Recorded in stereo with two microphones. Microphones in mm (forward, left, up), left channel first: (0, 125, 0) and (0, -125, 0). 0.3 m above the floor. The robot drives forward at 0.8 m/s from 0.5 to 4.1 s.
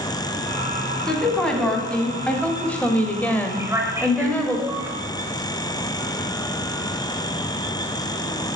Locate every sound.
1.1 s a woman speaking: 5° left (ahead or behind), 2.5 m
3.6 s a man speaking: 10° right (ahead or behind), 1.3 m